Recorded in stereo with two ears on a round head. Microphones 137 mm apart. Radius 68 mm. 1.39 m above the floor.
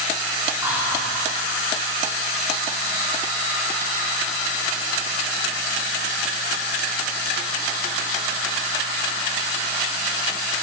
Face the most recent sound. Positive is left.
turn(degrees=-15)  # may be behind; listen again after turning